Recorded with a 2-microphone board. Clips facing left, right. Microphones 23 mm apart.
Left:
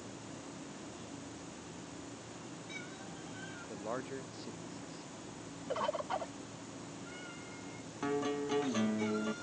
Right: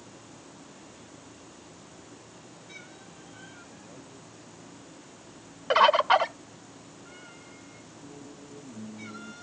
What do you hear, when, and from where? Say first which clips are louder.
3.7 s a man speaking: left 7 dB; 55° left (ahead or behind)
5.7 s a bird: right 16 dB; 60° right (ahead or behind)
8.0 s a guitar: left 14 dB; 80° left